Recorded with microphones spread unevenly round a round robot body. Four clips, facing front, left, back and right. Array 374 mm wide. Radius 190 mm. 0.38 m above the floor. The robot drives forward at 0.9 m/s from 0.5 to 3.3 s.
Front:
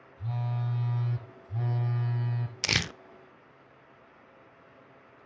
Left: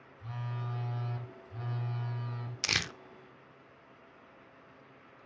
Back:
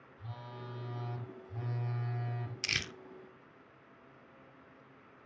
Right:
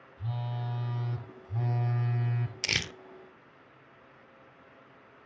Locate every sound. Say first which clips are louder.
0.2 s a phone buzzing: right 4 dB, front 11 dB; 45° right, 4.5 m; by 2.5 s 70° right, 3.5 m
2.6 s crumpling: even, front 11 dB; 5° right, 0.6 m; by 2.9 s 15° right, 0.5 m